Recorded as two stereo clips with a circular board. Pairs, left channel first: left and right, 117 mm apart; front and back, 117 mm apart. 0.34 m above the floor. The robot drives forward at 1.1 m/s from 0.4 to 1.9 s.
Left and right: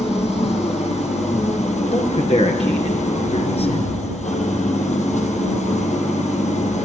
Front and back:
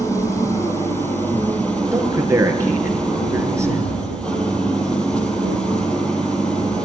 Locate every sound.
0.0 s an engine running: 65° left, 5.5 m; by 6.8 s 80° left, 5 m
1.9 s a man speaking: 115° left, 5 m